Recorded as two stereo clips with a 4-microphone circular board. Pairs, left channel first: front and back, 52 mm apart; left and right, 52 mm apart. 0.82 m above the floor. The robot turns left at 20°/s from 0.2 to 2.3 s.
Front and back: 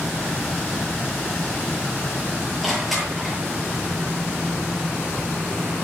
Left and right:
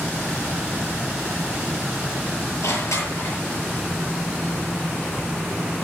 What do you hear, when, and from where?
2.6 s crushing: 90° left, 9 m